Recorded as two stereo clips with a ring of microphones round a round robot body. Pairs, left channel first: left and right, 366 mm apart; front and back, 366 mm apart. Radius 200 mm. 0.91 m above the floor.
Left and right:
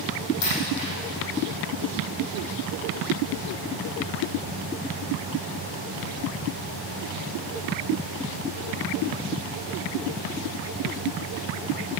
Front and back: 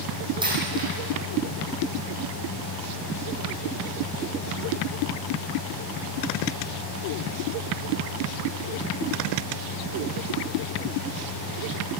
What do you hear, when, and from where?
0.4 s a dropped coin: 100° left, 6.5 m